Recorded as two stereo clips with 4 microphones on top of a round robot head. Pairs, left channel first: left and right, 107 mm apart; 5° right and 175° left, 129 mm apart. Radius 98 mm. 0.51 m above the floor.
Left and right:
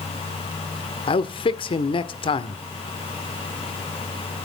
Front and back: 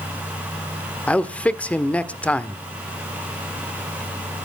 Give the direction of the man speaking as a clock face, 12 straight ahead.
10 o'clock.